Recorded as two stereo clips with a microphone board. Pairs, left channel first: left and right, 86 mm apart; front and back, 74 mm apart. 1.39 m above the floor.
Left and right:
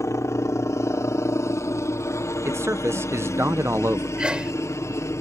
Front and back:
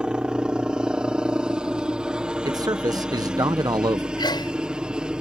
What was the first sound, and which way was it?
A helicopter, 110° left.